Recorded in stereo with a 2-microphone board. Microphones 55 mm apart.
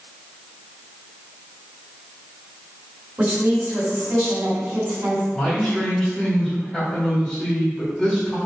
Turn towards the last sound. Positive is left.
turn(degrees=15)  # may be behind; listen again after turning